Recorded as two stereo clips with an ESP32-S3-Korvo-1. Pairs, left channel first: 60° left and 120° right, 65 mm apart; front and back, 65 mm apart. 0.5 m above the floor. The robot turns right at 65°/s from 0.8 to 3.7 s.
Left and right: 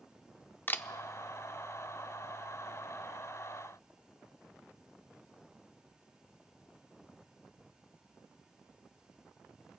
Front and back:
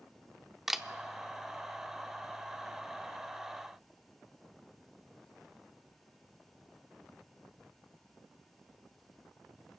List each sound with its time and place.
0.7 s a camera shutter: 100° left, 0.5 m